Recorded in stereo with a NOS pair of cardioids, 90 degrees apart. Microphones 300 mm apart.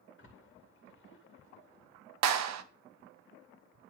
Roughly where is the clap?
Ahead right.